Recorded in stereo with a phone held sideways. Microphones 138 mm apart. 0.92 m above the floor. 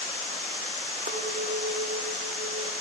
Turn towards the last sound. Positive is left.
turn(degrees=-65)  # may be behind; listen again after turning